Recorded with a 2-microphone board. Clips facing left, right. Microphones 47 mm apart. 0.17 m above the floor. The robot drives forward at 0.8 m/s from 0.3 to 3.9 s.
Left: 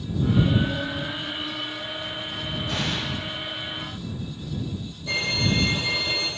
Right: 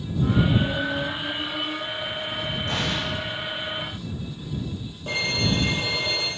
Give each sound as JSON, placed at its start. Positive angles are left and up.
{"t": 2.7, "sound": "an explosion", "side_deg": -65, "distance_m": 7.5}
{"t": 5.1, "sound": "a violin", "side_deg": -50, "distance_m": 4.5}